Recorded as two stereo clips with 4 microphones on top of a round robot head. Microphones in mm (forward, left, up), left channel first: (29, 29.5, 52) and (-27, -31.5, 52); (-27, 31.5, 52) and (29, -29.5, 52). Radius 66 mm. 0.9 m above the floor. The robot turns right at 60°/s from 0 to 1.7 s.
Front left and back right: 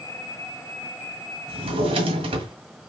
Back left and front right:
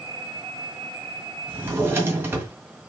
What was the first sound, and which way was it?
A drawer, 125° right.